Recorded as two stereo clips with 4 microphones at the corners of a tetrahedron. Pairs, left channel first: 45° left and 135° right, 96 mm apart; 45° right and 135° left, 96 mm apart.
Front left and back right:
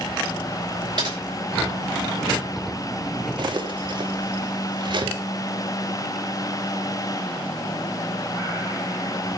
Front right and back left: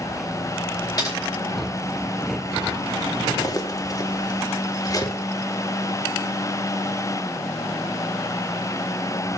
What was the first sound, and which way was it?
Typing on a keyboard, 95° right.